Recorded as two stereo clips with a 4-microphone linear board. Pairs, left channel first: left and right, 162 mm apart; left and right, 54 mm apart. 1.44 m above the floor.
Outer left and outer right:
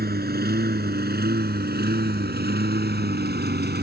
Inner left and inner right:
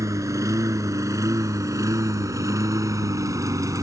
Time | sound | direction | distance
0.0 | a lawn mower | 65° right (ahead or behind) | ?